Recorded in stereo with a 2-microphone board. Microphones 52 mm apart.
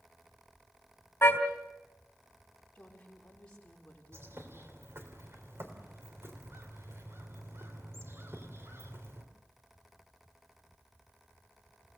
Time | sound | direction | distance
1.2 | a car horn | 50° left (ahead or behind) | 3.5 m
2.8 | a woman speaking | 20° left (ahead or behind) | 5.5 m
4.1 | a bird | 55° right (ahead or behind) | 3 m